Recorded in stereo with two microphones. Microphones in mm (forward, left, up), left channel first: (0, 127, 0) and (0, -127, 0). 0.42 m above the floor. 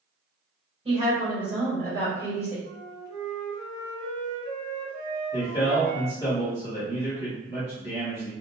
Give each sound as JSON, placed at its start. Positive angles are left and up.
{"t": 0.8, "sound": "a woman speaking", "side_deg": -25, "distance_m": 1.5}
{"t": 2.6, "sound": "a flute", "side_deg": -65, "distance_m": 0.9}
{"t": 5.3, "sound": "a man speaking", "side_deg": 15, "distance_m": 1.2}